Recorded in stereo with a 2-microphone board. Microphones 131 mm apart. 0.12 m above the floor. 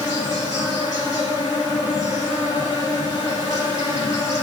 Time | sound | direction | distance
0.0 | an insect | 60° left (ahead or behind) | 4.5 m